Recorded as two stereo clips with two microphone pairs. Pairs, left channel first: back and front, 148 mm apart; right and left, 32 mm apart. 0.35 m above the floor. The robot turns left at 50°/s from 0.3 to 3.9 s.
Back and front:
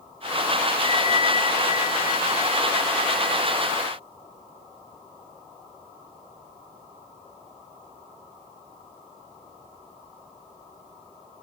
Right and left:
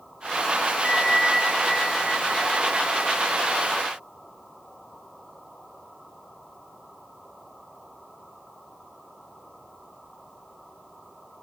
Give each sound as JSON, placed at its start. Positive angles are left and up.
{"t": 0.8, "sound": "a bell", "azimuth_deg": -140, "distance_m": 1.8}